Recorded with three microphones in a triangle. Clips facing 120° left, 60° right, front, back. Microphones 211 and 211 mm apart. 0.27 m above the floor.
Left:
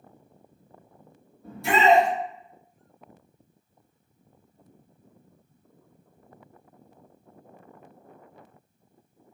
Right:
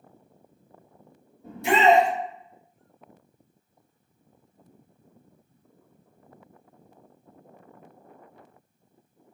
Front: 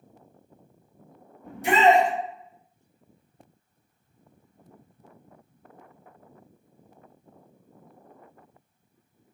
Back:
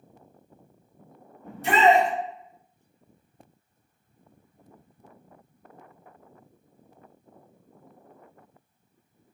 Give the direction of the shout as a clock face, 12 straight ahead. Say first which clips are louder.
Right 1 dB, even; 2 o'clock.